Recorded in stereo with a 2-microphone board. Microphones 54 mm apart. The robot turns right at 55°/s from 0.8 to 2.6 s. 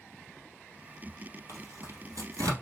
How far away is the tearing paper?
About 2 m.